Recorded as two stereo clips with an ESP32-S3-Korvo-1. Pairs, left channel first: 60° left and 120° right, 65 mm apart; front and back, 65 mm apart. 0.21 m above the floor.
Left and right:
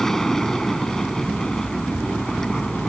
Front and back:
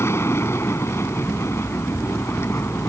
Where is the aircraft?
20° right.